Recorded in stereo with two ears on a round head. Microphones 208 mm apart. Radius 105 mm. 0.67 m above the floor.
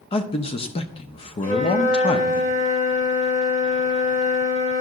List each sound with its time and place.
0.1 s a man speaking: 25° left (ahead or behind), 0.6 m
1.4 s a flute: 35° left (ahead or behind), 2 m